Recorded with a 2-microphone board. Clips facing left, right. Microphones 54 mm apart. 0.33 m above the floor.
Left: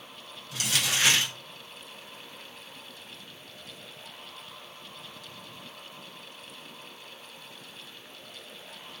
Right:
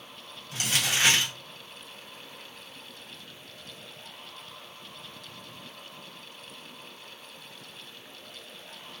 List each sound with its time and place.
0.5 s crumpling: 30° right (ahead or behind), 1.3 m